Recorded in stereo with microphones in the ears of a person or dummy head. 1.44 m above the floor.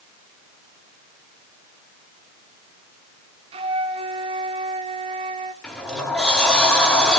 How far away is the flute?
About 1.4 m.